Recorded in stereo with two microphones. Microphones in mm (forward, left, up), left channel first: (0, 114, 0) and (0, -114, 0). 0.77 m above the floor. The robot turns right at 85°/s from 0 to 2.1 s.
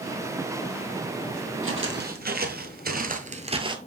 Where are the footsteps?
65° right (ahead or behind), 1.6 m; by 3.8 s 20° right (ahead or behind), 0.9 m.